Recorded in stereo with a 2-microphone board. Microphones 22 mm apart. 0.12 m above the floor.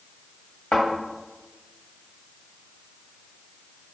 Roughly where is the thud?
Left.